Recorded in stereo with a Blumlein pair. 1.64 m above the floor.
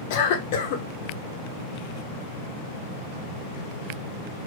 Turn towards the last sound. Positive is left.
turn(degrees=50)